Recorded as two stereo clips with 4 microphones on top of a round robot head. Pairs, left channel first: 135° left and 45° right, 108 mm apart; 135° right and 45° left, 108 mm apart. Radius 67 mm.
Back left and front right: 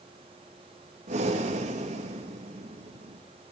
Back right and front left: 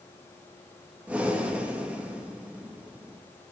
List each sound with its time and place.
1.1 s breathing: 35° right, 2.5 m